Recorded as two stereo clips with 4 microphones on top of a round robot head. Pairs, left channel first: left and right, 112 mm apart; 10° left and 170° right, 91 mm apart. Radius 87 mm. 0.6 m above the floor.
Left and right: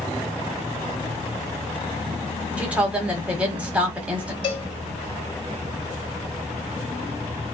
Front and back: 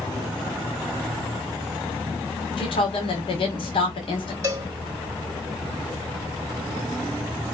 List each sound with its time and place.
2.6 s a woman speaking: 15° right, 1.5 m
4.4 s a cowbell: 135° left, 2.5 m